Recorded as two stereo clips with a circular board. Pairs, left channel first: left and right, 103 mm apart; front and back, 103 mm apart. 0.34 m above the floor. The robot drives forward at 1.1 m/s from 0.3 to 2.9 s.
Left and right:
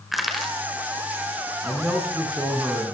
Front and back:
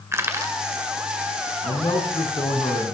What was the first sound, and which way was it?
Crushing, 175° right.